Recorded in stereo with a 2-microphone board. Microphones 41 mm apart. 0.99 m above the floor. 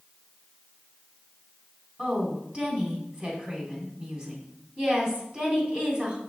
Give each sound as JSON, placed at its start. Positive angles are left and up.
{"t": 2.0, "sound": "a woman speaking", "side_deg": -30, "distance_m": 3.0}